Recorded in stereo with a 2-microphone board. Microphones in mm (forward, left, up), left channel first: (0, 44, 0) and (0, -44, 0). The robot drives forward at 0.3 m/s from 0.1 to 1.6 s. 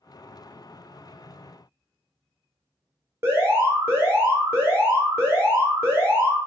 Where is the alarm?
30° right (ahead or behind), 0.9 m.